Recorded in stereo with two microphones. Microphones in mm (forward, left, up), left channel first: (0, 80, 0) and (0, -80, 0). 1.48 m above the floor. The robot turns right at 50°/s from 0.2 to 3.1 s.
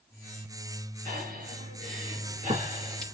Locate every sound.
1.1 s breathing: 55° right (ahead or behind), 4.5 m; by 3.0 s 25° right (ahead or behind), 4.5 m